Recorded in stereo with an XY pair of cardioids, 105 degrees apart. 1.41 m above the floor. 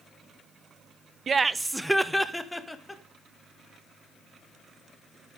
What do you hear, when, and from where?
1.3 s laughter: 40° right, 0.7 m; by 3.0 s 10° left, 2.5 m